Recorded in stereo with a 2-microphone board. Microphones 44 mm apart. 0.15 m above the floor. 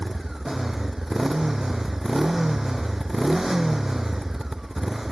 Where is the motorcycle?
10° right (ahead or behind).